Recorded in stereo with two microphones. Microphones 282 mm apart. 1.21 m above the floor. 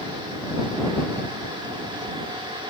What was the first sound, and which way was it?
Only background noise.